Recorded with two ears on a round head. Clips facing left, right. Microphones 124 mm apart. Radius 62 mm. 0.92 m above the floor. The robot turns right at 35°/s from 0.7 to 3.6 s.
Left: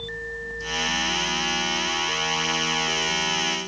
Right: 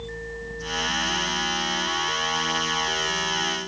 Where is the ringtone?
I don't hear a ringtone.